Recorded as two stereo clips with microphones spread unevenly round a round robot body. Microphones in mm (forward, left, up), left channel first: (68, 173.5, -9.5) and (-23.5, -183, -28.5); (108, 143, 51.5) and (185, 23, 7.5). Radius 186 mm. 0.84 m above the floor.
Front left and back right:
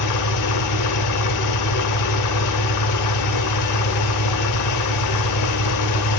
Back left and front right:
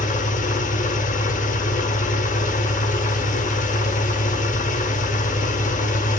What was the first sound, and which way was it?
An engine running, 115° left.